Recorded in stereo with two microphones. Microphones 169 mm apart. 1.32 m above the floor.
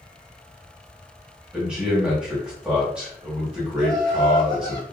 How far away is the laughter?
About 1.3 m.